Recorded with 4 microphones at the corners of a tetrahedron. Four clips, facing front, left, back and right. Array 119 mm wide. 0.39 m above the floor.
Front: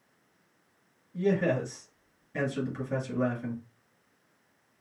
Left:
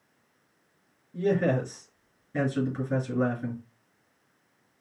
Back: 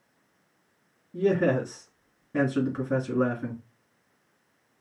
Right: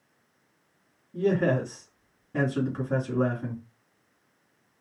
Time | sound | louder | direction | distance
1.1 | a man speaking | right 1 dB, back 3 dB | 155° right | 4 m